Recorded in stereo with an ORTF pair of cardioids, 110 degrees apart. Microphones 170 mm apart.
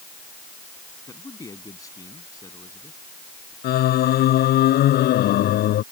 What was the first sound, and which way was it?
A man speaking, 20° left.